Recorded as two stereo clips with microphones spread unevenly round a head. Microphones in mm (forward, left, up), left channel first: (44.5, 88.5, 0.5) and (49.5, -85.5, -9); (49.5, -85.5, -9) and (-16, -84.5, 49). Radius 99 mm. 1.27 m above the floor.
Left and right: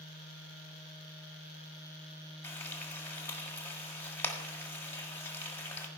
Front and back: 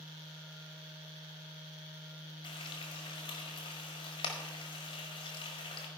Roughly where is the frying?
Ahead.